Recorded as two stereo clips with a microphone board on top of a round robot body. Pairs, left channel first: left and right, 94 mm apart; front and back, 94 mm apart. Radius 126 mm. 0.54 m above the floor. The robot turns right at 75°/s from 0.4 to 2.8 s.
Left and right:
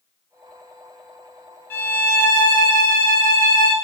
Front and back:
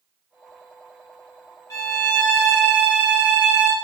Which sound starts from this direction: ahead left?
A violin, at 1.7 s.